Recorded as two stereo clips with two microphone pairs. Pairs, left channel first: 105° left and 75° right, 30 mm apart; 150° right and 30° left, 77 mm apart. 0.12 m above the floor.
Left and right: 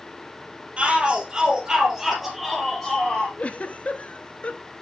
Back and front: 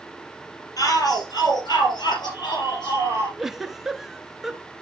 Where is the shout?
120° right, 3.5 m; by 3.3 s 175° right, 3.5 m.